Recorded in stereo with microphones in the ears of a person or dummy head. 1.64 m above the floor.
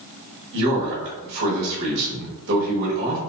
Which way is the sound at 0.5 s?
65° right (ahead or behind).